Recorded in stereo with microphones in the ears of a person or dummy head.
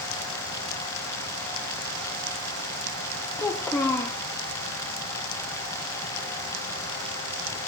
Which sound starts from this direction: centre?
A child speaking, at 3.4 s.